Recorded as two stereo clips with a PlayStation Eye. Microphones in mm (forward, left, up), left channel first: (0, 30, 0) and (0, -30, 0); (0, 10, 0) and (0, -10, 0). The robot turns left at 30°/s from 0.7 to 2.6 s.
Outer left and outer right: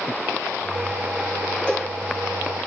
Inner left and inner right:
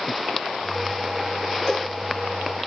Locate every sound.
1.7 s a cowbell: 15° left (ahead or behind), 1.9 m; by 1.9 s 10° left (ahead or behind), 1.9 m